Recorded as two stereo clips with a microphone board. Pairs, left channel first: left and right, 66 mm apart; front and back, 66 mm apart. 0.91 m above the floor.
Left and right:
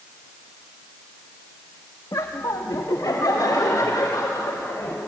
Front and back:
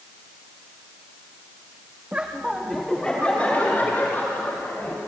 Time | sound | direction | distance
2.1 | laughter | 115° left | 1.4 m